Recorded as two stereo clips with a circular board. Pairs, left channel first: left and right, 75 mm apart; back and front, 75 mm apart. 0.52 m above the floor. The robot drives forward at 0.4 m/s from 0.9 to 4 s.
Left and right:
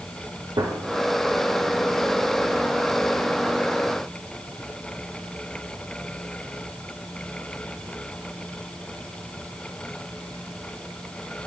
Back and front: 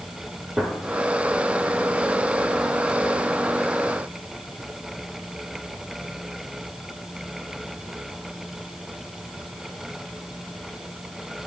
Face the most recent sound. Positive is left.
turn(degrees=-145)